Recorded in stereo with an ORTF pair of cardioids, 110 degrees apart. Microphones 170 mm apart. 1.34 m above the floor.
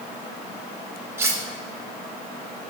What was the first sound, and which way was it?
Cutlery clinking, 15° right.